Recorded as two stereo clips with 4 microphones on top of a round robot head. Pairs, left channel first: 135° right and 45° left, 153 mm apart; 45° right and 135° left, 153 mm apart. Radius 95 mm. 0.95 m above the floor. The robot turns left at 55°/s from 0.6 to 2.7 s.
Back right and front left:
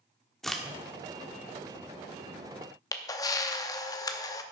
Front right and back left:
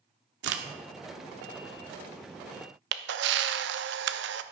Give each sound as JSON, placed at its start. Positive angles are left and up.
{"t": 0.4, "sound": "a crack", "azimuth_deg": 135, "distance_m": 1.1}
{"t": 2.9, "sound": "a camera shutter", "azimuth_deg": 155, "distance_m": 0.6}